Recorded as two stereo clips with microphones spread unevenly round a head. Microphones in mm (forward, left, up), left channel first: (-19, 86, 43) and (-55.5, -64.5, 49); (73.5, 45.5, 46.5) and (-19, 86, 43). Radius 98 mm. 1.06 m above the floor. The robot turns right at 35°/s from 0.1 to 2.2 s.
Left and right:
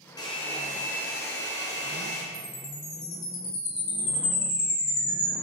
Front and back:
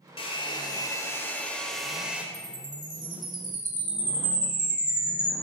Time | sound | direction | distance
0.2 | a hair dryer | 5° left | 2.5 m
2.3 | a chime | 110° left | 3.5 m